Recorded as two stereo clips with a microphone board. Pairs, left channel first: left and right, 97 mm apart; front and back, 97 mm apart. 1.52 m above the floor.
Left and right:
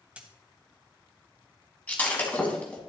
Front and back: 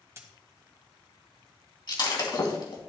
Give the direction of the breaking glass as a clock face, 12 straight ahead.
11 o'clock.